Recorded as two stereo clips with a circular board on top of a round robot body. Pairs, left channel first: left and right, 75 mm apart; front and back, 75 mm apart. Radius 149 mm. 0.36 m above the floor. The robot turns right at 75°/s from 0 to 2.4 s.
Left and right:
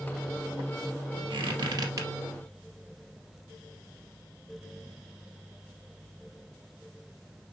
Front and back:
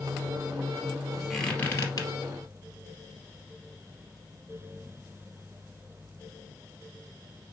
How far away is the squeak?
About 2.5 m.